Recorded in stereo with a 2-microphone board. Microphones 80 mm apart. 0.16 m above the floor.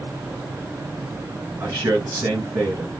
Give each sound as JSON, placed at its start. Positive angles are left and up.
{"t": 1.6, "sound": "a man speaking", "side_deg": -30, "distance_m": 3.0}